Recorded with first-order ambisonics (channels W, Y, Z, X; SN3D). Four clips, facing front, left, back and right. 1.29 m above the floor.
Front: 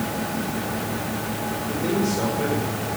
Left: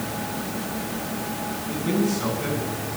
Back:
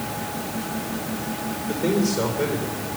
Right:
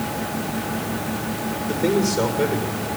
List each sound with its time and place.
1.6 s a man speaking: 105° right, 6 m